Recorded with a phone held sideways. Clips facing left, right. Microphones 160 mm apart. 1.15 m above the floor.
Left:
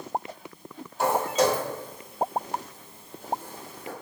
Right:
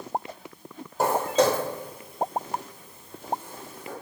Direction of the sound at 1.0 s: 40° right (ahead or behind).